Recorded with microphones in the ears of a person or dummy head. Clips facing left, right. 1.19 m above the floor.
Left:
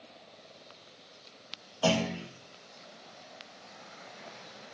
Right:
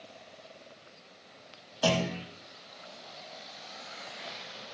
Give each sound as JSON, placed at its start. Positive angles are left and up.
{"t": 1.8, "sound": "a clunk", "side_deg": -20, "distance_m": 1.2}